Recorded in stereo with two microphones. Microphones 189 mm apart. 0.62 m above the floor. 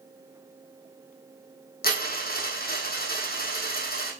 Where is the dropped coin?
55° left (ahead or behind), 2 m.